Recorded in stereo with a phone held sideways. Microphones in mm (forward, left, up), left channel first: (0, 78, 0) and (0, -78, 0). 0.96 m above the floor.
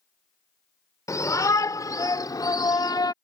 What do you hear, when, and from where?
1.1 s a shout: 20° left (ahead or behind); by 3.1 s 25° left (ahead or behind)